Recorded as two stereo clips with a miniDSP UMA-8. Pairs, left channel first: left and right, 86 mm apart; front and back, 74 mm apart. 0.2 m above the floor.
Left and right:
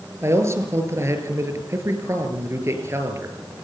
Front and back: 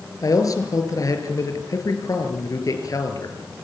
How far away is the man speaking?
About 4.5 m.